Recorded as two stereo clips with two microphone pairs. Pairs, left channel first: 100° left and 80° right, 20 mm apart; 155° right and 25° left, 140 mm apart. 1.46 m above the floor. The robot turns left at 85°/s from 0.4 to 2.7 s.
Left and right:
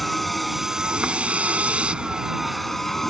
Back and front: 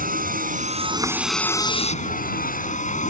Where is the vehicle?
15° left; by 3.1 s straight behind.